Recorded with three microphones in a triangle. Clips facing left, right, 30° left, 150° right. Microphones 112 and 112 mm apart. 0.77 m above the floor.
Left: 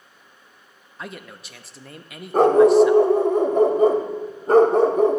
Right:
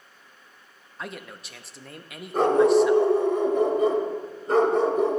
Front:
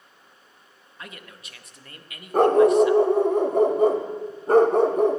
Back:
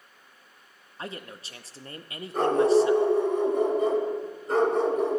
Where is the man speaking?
Straight behind, 0.6 m.